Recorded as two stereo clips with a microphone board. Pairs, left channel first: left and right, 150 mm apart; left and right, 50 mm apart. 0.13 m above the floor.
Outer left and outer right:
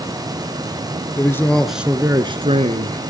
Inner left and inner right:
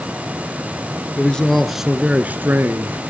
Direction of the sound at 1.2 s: 20° left (ahead or behind).